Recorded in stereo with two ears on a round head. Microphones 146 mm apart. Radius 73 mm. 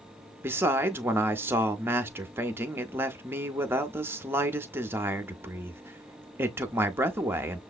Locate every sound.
0.4 s a man speaking: 15° right (ahead or behind), 0.6 m